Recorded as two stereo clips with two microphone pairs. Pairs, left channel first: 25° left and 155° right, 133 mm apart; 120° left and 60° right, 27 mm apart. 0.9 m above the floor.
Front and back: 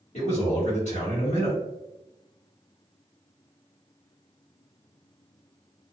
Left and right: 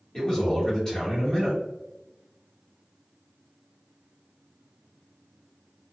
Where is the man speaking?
55° left, 1.8 m.